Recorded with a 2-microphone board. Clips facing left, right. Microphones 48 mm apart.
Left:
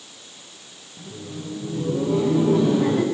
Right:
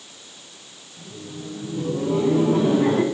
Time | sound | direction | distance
1.0 | laughter | 20° left (ahead or behind) | 7 m